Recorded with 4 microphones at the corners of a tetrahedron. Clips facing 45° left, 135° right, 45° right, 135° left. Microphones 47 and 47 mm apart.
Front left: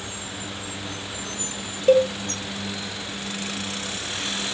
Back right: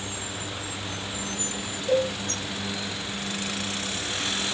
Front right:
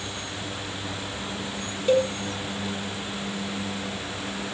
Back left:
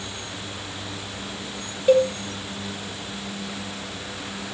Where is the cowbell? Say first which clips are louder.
Front left 7 dB, back left 4 dB; 60° left, 1.9 m.